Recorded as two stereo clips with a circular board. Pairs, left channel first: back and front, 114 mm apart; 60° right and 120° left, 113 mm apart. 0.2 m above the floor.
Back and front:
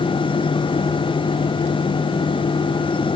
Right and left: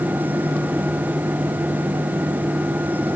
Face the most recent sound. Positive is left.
No sound to turn to.